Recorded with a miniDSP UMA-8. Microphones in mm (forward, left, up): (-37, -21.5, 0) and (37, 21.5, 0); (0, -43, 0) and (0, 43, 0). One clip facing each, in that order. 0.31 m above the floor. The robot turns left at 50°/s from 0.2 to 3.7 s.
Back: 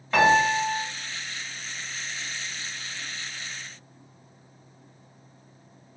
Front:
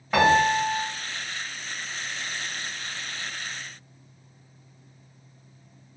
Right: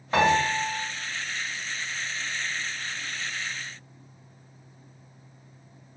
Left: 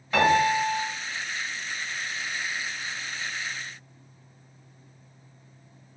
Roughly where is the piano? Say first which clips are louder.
Even, left 1 dB; ahead right.